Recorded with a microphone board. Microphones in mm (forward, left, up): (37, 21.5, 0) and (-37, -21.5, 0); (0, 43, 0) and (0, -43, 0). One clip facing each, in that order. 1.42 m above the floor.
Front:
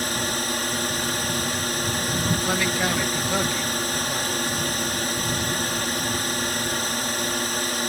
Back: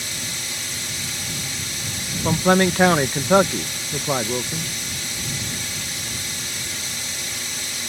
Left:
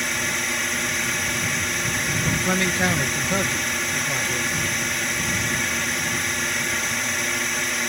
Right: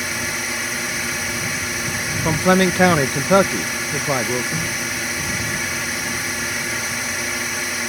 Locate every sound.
0.0 s a drone: straight ahead
2.2 s a man speaking: 115° right